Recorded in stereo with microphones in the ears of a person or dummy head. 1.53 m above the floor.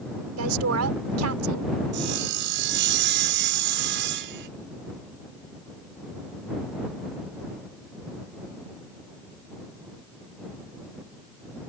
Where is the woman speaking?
85° right.